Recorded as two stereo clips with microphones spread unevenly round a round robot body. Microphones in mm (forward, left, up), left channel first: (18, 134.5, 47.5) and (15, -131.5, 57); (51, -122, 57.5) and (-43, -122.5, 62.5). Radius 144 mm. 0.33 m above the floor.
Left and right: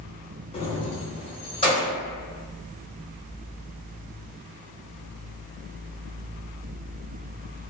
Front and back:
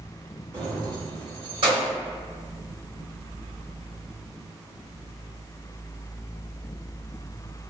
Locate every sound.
0.5 s keys jangling: 135° left, 0.6 m; by 1.9 s 160° left, 1.2 m